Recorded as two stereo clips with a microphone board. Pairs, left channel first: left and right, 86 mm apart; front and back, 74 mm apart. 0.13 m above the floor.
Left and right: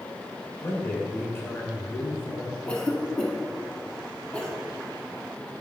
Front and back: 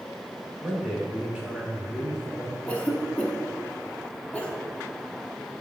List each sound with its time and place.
0.6 s a man speaking: 120° left, 1.8 m
2.7 s a cough: 30° left, 1.1 m